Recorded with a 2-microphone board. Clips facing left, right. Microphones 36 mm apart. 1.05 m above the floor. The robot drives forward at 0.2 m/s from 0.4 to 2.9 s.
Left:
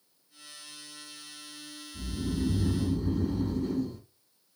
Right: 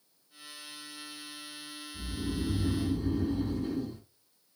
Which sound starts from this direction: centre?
Snoring, at 1.9 s.